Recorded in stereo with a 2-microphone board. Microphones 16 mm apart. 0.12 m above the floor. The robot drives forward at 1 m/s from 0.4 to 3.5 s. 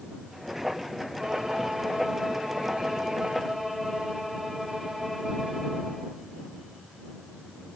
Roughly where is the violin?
Right.